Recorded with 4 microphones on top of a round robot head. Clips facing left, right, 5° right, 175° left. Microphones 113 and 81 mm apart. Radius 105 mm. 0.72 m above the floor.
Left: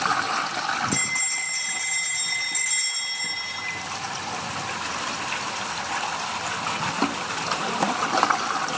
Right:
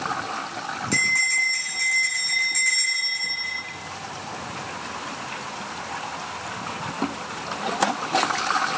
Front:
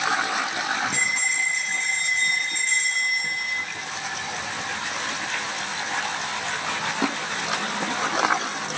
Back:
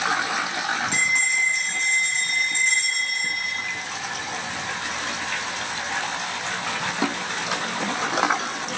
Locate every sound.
0.9 s a bell: 175° left, 6.5 m